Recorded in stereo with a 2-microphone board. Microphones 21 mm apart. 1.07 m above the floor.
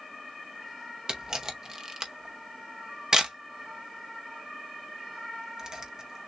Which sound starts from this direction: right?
A camera shutter, at 1.1 s.